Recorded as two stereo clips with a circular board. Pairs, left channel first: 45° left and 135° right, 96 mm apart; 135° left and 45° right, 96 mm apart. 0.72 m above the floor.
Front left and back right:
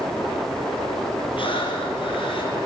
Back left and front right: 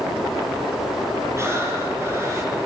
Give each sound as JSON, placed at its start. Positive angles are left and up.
{"t": 1.4, "sound": "breathing", "azimuth_deg": 15, "distance_m": 6.5}